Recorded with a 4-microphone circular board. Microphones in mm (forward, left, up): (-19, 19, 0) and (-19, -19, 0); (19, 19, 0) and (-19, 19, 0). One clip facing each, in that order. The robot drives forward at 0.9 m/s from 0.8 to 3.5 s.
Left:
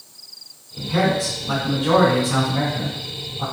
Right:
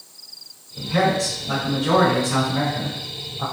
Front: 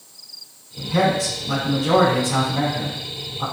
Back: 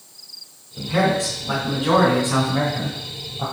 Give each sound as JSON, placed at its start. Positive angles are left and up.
{"t": 0.8, "sound": "a man speaking", "azimuth_deg": 160, "distance_m": 1.8}